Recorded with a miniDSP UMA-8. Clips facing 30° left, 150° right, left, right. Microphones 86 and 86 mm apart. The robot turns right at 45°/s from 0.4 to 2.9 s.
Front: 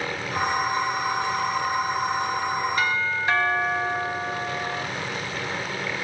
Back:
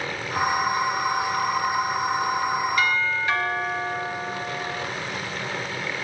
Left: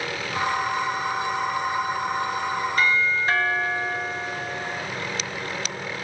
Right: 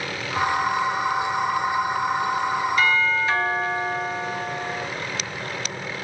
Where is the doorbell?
75° left, 3 m; by 4.8 s 80° left, 3 m.